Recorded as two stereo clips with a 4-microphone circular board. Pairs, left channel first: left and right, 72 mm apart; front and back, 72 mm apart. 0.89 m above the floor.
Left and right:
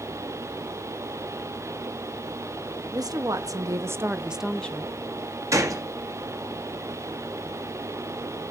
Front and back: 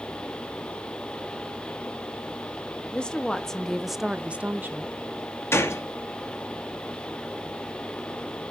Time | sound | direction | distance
2.9 | a woman speaking | 75° right | 1.4 m
5.5 | a gunshot | 50° right | 1.2 m